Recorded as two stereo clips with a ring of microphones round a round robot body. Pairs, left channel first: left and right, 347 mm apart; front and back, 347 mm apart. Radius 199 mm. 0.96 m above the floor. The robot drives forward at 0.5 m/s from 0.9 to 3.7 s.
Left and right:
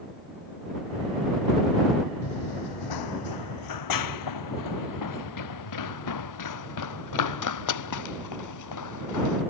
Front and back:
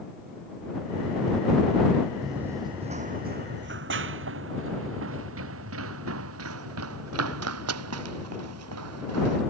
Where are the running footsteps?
90° left; by 9.4 s 125° left.